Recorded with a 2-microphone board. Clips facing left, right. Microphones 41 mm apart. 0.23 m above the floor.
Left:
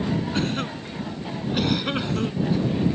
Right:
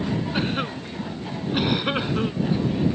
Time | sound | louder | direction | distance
0.3 | a cough | right 1 dB | 15° right (ahead or behind) | ?